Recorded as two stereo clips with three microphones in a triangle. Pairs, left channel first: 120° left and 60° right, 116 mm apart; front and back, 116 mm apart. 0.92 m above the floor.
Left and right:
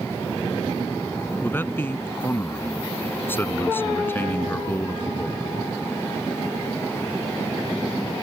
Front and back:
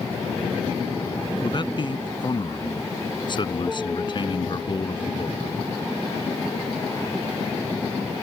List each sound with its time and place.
1.4 s a man speaking: 50° left